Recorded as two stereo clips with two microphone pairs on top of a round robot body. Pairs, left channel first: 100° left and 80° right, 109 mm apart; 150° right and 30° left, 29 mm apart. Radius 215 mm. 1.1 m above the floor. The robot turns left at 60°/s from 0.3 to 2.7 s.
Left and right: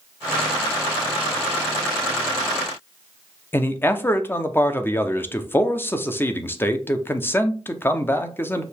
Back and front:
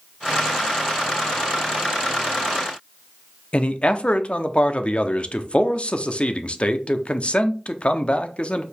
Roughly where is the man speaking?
Behind.